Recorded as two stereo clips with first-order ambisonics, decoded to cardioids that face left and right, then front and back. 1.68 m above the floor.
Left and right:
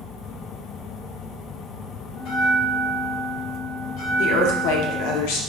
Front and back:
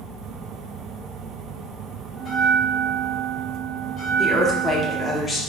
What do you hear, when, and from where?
2.2 s a bell: 90° left, 0.8 m
4.2 s a woman speaking: 85° left, 0.7 m